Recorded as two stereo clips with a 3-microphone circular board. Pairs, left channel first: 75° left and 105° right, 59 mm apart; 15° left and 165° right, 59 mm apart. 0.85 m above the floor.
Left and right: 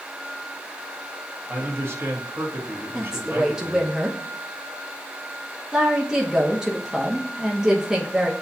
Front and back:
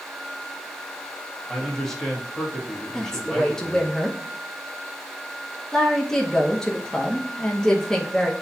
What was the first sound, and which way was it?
A man speaking, 65° right.